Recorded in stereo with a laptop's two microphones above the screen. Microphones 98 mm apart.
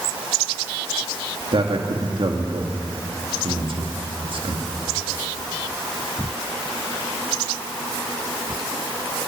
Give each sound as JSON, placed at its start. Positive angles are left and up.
{"t": 1.5, "sound": "a man speaking", "side_deg": -60, "distance_m": 2.5}